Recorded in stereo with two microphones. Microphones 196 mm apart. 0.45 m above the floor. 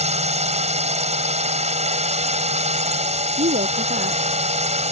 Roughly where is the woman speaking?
Right.